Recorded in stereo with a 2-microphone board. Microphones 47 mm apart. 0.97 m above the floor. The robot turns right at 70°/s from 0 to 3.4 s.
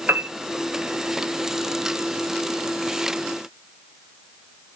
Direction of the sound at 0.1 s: 40° right (ahead or behind).